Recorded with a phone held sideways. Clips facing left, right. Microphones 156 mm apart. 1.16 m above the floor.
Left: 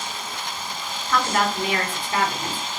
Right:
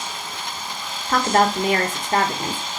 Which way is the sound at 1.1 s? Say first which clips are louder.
Right 4 dB; 45° right (ahead or behind).